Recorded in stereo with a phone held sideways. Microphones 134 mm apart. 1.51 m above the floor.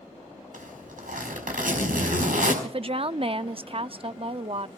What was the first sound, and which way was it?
A zipper, 80° right.